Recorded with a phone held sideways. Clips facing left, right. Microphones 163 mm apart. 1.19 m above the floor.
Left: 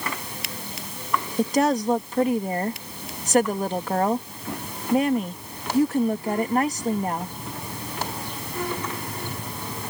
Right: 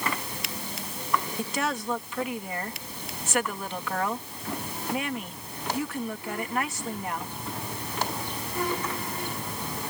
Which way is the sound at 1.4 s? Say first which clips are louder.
Left 9 dB; 35° left (ahead or behind).